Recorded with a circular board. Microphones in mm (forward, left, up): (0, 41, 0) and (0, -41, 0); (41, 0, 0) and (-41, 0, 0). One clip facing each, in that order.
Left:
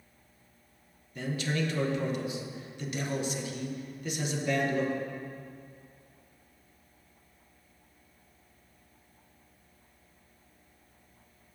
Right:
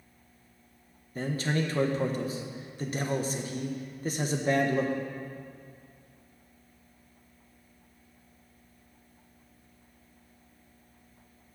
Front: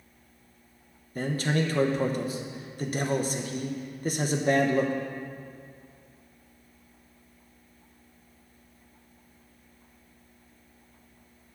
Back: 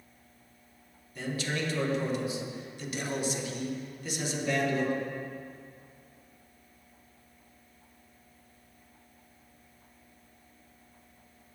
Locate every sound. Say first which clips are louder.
1.1 s a man speaking: right 2 dB, front 6 dB; 40° right, 0.9 m